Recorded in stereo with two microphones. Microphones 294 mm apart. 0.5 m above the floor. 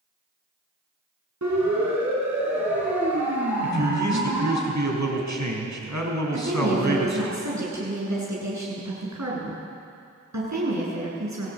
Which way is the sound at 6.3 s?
70° right (ahead or behind).